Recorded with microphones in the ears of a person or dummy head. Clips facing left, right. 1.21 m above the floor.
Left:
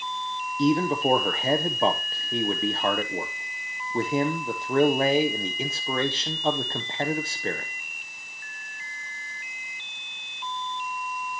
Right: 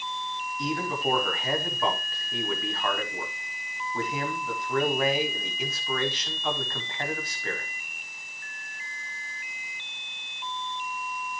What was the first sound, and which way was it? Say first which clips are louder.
A man speaking: left 8 dB; 25° left (ahead or behind).